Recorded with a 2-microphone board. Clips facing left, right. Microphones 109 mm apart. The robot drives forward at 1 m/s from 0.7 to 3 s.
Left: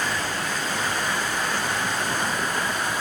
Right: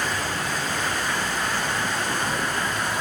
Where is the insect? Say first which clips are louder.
Even; 50° right (ahead or behind), 6 m; by 3.0 s 65° right (ahead or behind), 5 m.